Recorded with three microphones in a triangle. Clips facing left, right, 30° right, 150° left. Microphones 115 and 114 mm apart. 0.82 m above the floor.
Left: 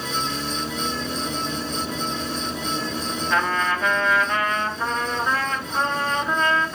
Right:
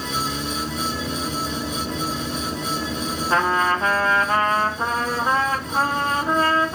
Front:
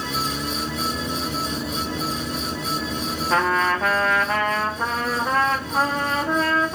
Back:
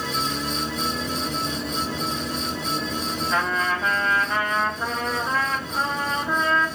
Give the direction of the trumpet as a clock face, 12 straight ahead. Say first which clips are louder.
Right 3 dB, front 5 dB; 1 o'clock.